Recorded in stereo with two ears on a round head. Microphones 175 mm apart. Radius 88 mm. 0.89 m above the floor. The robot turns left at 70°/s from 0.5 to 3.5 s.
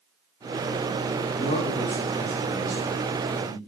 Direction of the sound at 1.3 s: 40° left.